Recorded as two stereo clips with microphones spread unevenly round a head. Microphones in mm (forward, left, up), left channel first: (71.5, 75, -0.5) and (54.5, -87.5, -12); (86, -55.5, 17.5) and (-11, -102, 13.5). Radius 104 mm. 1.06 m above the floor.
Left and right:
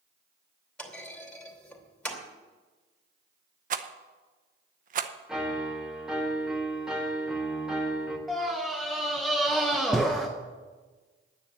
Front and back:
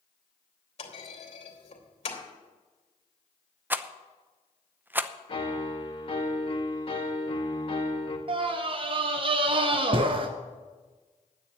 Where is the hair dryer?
I don't hear a hair dryer.